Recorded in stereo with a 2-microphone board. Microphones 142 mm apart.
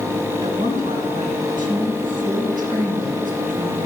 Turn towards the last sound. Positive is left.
turn(degrees=-75)  # may be behind; listen again after turning